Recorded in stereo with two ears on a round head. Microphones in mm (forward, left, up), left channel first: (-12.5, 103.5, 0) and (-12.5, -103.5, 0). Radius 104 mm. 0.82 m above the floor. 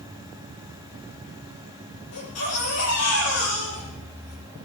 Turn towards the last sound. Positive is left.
turn(degrees=75)  # may be behind; listen again after turning